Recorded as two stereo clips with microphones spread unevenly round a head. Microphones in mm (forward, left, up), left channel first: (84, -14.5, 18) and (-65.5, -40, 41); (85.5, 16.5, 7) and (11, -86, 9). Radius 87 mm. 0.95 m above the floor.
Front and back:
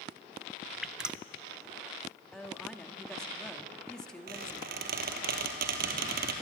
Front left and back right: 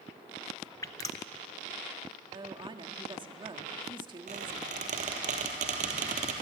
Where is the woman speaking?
75° right, 1.9 m.